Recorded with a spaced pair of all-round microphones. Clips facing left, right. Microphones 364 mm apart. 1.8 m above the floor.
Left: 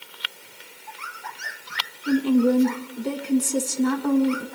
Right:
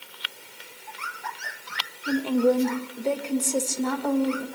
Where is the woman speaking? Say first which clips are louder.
Left 3 dB; 25° left (ahead or behind), 1.9 m.